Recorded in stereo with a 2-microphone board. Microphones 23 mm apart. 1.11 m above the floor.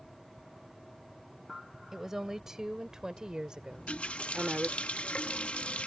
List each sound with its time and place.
1.9 s a woman speaking: 15° right (ahead or behind); by 4.7 s 50° right (ahead or behind)
3.7 s a running tap: 65° left (ahead or behind)